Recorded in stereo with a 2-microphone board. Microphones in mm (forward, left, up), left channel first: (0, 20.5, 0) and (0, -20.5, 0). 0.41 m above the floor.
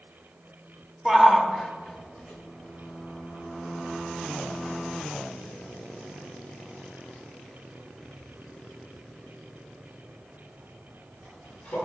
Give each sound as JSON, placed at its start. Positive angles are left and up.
{"t": 1.1, "sound": "a shout", "side_deg": -15, "distance_m": 1.1}